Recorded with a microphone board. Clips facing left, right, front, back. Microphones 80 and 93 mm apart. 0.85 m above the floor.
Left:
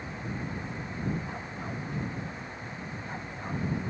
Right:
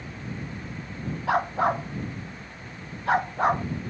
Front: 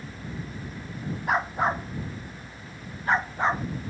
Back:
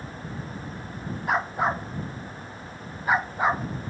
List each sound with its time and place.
1.3 s a dog barking: 90° right; by 3.6 s 100° right